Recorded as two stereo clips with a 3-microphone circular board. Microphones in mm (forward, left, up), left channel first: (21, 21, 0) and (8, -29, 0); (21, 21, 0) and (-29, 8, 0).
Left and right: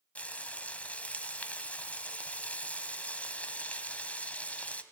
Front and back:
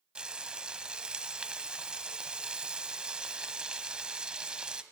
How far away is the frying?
About 1.7 m.